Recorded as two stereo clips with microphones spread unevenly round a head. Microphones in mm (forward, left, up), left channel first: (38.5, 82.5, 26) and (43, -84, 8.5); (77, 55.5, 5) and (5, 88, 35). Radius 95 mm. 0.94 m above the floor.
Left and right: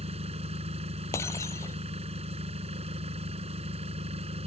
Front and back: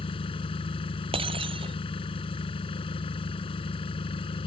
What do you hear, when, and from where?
0.0 s an engine running: 35° right
1.1 s breaking glass: 165° left